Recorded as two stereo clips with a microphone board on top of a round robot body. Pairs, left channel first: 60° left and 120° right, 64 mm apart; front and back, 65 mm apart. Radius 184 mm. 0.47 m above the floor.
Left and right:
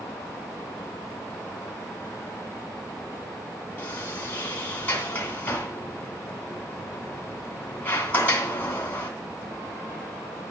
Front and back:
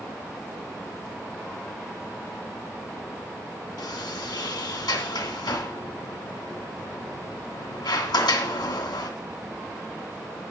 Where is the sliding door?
5° right, 2.5 m.